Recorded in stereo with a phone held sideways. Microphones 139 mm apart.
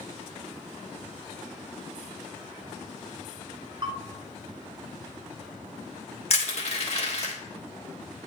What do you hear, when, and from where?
3.8 s a bell: 35° right (ahead or behind), 0.7 m
6.3 s crushing: 50° left (ahead or behind), 1.4 m